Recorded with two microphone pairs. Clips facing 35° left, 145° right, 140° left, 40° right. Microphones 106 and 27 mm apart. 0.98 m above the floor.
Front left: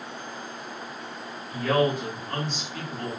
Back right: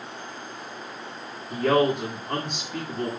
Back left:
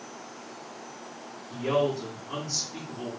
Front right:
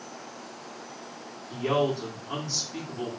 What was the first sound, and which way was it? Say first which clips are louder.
A man speaking: back right 2 dB, even; 115° right.